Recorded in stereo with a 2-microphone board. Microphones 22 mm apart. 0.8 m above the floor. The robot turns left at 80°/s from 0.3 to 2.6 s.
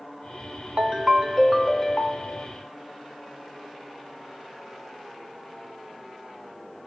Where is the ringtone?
110° right, 0.5 m; by 2.5 s 115° left, 0.5 m.